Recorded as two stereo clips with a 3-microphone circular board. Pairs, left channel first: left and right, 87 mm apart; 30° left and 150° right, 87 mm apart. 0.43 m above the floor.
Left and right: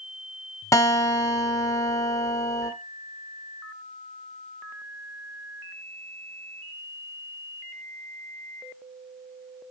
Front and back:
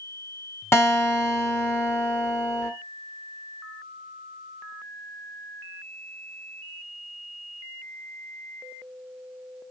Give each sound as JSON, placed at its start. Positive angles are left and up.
{"t": 0.7, "sound": "a guitar", "azimuth_deg": 70, "distance_m": 0.8}